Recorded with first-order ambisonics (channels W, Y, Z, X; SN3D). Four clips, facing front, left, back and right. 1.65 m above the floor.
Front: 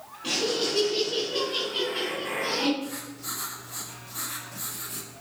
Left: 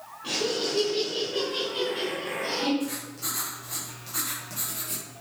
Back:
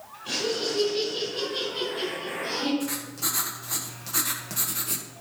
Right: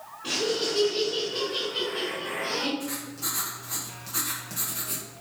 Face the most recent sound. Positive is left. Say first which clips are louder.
# left 1 dB, back 5 dB
turn(degrees=-175)